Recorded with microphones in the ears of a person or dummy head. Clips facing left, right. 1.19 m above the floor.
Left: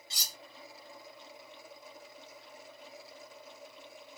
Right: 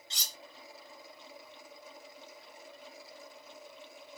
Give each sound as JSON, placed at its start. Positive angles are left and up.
{"t": 0.1, "sound": "cutlery clinking", "side_deg": 10, "distance_m": 0.7}